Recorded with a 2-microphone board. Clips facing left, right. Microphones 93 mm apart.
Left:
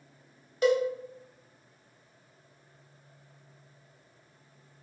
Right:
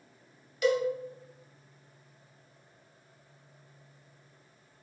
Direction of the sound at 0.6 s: 35° left (ahead or behind).